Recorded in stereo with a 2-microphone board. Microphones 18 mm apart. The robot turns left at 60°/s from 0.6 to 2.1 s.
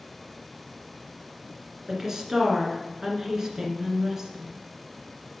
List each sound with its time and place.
1.9 s a woman speaking: 25° right (ahead or behind), 1.6 m; by 4.6 s 30° right (ahead or behind), 1.6 m